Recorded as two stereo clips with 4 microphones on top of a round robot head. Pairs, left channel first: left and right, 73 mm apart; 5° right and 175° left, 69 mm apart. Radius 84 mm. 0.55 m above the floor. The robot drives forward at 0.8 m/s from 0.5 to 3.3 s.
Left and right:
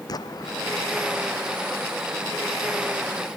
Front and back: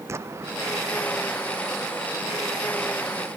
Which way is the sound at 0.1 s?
125° left.